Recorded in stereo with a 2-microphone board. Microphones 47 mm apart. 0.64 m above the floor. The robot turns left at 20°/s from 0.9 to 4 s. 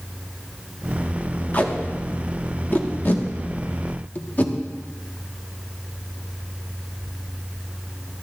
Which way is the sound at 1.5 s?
35° left (ahead or behind).